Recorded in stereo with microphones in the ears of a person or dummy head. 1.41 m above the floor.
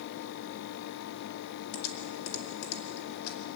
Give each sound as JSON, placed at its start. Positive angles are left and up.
{"t": 1.7, "sound": "typing on a keyboard", "side_deg": 65, "distance_m": 2.5}